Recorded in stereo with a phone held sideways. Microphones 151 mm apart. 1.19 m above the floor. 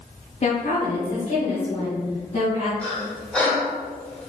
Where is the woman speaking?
45° left (ahead or behind), 0.7 m; by 2.7 s 50° left (ahead or behind), 2.5 m.